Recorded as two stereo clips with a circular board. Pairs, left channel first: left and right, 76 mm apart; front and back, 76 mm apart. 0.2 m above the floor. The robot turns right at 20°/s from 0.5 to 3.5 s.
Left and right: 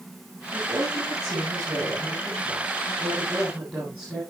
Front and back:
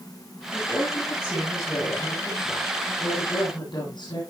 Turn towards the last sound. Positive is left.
turn(degrees=-15)